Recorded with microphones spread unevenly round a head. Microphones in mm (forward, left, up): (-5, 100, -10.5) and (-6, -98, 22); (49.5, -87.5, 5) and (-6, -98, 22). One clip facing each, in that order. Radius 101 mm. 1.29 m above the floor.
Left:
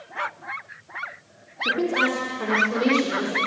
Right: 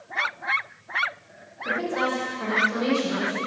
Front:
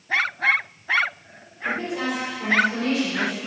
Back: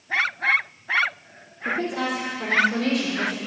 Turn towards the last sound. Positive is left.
turn(degrees=130)